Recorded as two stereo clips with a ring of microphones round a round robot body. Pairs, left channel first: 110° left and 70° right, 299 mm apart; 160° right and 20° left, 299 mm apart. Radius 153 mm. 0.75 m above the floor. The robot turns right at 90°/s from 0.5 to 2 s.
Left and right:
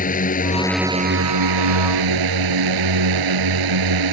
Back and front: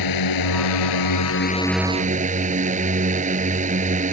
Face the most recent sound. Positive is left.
turn(degrees=-45)